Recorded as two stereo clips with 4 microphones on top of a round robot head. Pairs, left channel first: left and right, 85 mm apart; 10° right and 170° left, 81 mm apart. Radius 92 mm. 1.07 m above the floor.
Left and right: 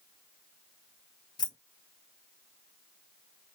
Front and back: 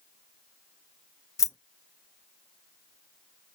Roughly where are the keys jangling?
Ahead left.